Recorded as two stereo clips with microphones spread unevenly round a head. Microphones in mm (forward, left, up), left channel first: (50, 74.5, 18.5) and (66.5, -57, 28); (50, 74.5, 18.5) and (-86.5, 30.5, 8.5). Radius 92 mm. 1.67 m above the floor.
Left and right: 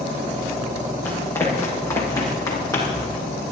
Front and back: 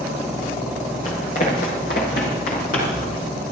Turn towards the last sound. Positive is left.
turn(degrees=30)